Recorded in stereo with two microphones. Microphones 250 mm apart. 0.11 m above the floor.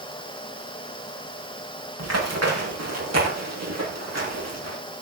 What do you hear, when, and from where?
2.0 s running footsteps: 85° right, 9.5 m; by 4.8 s 90° right, 9.5 m